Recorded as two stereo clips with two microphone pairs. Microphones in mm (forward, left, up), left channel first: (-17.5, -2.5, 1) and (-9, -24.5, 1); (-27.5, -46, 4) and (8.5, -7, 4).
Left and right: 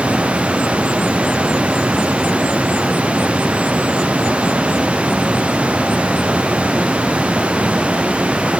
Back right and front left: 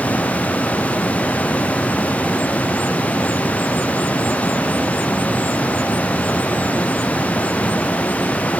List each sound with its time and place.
Only background noise.